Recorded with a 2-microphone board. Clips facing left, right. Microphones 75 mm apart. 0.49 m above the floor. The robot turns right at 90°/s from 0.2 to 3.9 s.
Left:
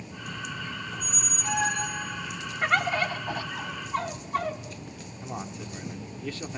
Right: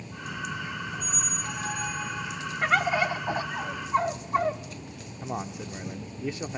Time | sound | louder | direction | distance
0.9 | a squeak | right 2 dB | 40° left | 1.9 m
2.6 | a bird | right 1 dB | centre (ahead or behind) | 1.0 m
5.2 | a man speaking | right 3 dB | 20° right (ahead or behind) | 0.8 m